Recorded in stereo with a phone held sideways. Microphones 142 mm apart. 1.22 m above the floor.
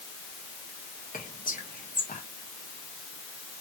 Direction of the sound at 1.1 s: 75° left (ahead or behind).